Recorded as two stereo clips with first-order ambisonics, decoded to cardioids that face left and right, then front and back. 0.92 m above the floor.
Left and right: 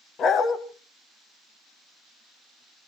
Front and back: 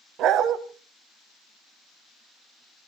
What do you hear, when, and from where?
0.2 s a dog barking: 145° left, 1.2 m